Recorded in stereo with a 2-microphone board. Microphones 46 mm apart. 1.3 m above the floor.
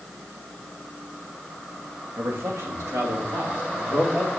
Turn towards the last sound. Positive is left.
turn(degrees=-90)